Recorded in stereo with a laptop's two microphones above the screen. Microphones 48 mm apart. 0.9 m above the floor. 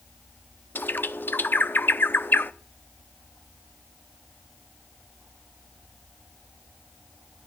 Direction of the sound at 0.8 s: 45° left (ahead or behind).